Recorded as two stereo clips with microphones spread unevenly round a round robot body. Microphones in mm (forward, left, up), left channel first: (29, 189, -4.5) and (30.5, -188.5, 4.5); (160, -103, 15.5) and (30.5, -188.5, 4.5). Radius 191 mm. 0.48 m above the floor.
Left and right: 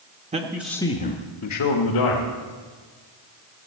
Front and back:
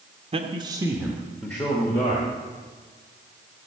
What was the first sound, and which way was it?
A man speaking, 155° right.